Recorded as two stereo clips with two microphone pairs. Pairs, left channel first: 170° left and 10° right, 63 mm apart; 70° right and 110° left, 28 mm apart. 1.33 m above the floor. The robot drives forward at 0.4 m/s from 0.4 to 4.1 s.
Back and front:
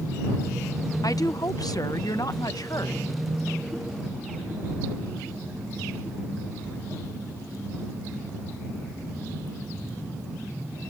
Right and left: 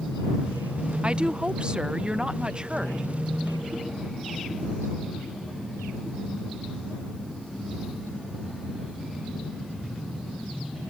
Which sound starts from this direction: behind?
A woman speaking, at 1.0 s.